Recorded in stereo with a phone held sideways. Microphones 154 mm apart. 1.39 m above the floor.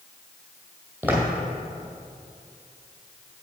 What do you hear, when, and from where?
1.0 s footsteps: 10° right (ahead or behind), 2.5 m